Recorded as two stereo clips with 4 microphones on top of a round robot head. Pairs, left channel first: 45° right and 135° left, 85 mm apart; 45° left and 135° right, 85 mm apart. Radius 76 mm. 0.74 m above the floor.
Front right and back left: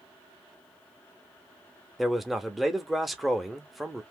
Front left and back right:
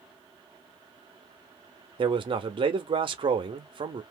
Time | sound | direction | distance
2.0 | a man speaking | 135° right | 1.1 m